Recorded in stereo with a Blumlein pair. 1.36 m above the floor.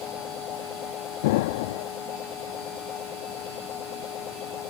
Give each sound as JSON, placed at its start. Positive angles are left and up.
{"t": 0.0, "sound": "a machine running", "azimuth_deg": 30}
{"t": 1.2, "sound": "an explosion", "azimuth_deg": 50}